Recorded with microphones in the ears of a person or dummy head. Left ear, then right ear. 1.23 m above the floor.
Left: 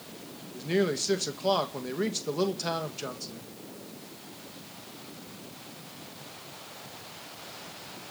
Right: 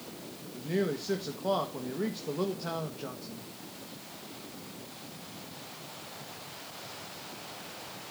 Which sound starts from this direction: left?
A man speaking, at 0.5 s.